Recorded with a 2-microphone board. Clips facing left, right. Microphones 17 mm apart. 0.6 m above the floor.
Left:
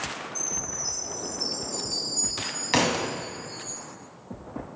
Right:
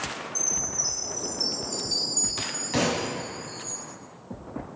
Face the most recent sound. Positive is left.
turn(degrees=40)  # may be behind; listen again after turning